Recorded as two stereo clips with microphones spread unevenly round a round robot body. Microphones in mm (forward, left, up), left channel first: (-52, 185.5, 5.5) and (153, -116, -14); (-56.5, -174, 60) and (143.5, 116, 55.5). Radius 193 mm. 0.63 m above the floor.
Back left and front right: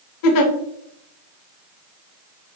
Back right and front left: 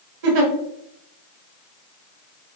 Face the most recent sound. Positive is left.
turn(degrees=90)